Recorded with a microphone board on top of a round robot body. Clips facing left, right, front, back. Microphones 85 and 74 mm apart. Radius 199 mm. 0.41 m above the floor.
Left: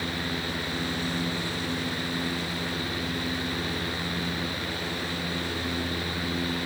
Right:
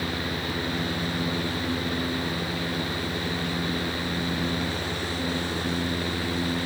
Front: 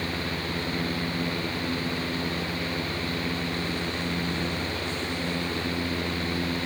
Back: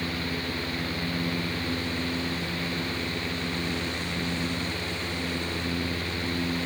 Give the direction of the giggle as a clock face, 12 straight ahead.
No giggle in this recording.